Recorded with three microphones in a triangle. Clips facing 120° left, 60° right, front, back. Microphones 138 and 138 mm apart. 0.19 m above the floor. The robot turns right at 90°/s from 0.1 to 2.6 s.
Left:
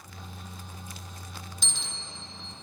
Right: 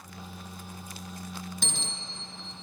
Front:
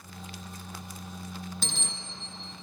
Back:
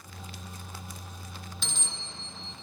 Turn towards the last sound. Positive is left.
turn(degrees=50)